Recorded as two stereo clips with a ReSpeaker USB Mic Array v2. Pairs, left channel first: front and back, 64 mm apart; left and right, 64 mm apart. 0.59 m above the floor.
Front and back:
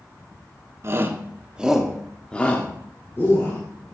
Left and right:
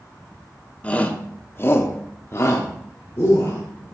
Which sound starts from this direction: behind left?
A shout, at 0.8 s.